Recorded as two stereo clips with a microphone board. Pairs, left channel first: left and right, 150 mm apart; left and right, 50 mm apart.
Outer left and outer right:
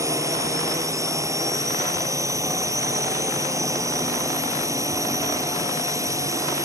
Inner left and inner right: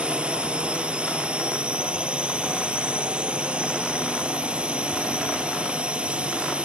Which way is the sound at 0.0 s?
20° right (ahead or behind).